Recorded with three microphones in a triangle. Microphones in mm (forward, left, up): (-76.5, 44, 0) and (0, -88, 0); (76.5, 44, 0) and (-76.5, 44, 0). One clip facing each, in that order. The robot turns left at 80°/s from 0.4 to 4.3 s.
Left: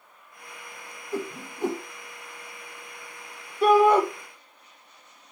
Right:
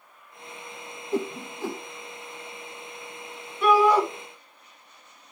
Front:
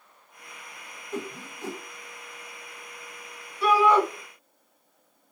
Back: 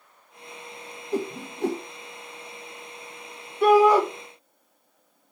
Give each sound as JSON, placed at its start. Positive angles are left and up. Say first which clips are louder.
{"t": 1.1, "sound": "a whoosh", "louder": "right 4 dB, back 6 dB", "azimuth_deg": -125, "distance_m": 0.7}
{"t": 3.6, "sound": "a shout", "louder": "left 2 dB, back 4 dB", "azimuth_deg": 165, "distance_m": 1.6}